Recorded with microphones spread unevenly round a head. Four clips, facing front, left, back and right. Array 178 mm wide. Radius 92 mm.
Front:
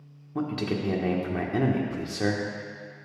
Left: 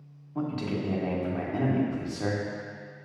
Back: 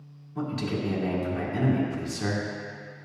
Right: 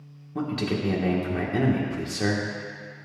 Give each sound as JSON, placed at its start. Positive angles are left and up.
{"t": 0.3, "sound": "a man speaking", "azimuth_deg": -40, "distance_m": 1.5}